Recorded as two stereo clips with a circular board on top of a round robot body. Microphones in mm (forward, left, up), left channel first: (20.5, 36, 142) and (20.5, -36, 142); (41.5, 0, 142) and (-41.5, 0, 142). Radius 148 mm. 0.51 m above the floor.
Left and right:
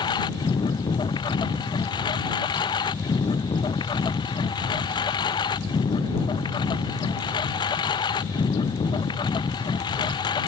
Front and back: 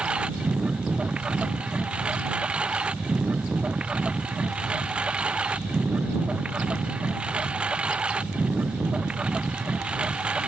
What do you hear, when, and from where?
0.0 s a lawn mower: 100° left